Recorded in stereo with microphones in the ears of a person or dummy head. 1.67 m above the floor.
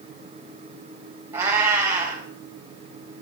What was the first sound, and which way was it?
A cat meowing, 10° right (ahead or behind).